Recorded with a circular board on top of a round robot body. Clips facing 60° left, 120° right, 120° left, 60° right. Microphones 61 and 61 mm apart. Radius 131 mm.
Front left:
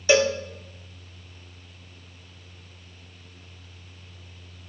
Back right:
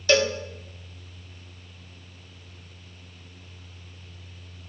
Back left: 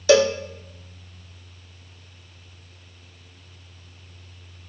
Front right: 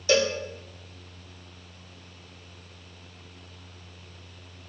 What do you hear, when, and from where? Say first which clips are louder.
0.1 s a cowbell: front left 2 dB, back left 7 dB; 135° left, 0.7 m